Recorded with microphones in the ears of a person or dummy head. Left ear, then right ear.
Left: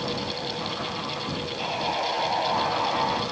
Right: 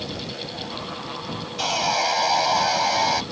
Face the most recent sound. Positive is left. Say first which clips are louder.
# right 6 dB
turn(degrees=-85)